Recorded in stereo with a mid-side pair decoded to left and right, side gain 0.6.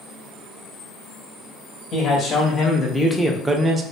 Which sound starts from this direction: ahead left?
A man speaking, at 1.9 s.